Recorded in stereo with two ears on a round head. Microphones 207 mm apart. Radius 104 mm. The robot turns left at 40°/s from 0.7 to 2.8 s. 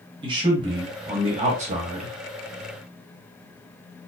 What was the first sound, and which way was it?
A man speaking, 45° right.